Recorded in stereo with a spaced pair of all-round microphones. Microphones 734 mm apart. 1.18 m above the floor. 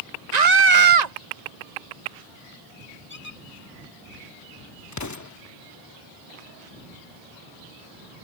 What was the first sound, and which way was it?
A scream, 65° right (ahead or behind).